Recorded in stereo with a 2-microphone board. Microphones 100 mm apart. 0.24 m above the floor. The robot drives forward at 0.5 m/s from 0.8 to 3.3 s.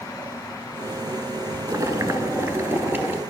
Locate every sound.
1.7 s boiling: 35° right (ahead or behind), 0.7 m; by 3.2 s 20° right (ahead or behind), 1.4 m